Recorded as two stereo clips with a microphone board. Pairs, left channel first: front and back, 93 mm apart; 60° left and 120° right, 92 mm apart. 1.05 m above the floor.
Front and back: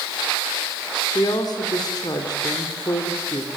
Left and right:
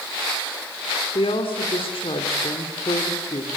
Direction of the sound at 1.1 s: 45° left.